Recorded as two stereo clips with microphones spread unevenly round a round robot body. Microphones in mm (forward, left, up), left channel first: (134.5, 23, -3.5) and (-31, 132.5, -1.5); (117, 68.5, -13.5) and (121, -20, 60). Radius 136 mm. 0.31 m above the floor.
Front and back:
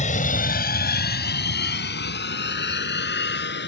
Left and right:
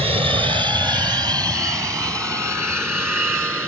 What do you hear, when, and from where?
0.0 s an aircraft: 35° right; by 3.7 s 5° right